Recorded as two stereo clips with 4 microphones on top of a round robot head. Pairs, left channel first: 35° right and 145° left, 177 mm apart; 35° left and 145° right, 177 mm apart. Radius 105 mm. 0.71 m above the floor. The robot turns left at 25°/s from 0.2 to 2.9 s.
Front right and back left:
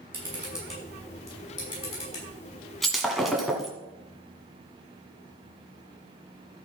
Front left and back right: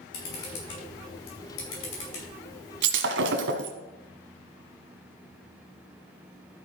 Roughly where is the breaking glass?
Behind right.